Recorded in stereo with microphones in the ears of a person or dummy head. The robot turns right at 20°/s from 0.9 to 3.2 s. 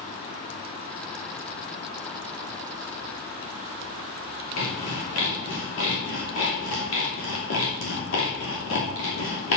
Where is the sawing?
80° left, 2.5 m.